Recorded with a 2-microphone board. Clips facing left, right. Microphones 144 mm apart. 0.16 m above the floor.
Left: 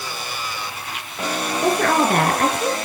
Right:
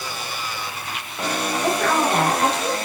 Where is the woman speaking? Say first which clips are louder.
Left 3 dB; 60° left (ahead or behind), 2 m.